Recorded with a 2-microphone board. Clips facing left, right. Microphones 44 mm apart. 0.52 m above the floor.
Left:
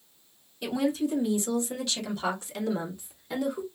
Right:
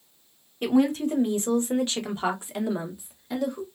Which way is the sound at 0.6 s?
50° right (ahead or behind).